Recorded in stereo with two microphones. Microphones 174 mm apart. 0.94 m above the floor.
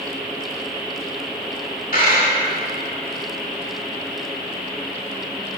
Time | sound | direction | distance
1.9 | a dropped coin | 55° left (ahead or behind) | 1.1 m